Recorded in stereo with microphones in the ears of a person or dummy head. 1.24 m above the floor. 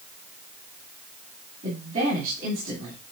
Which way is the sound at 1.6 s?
45° right (ahead or behind).